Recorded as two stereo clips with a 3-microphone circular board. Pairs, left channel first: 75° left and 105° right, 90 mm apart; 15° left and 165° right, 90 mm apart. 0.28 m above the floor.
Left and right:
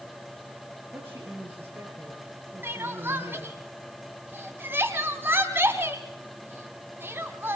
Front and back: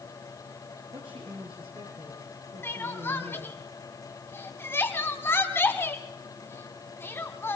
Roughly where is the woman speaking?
Behind.